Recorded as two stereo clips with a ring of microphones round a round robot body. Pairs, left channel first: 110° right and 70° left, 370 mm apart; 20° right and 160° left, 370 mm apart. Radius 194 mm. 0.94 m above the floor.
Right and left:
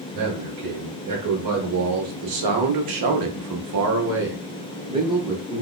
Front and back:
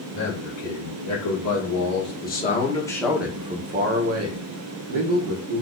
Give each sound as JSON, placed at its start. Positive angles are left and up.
{"t": 0.1, "sound": "a man speaking", "azimuth_deg": 20, "distance_m": 2.0}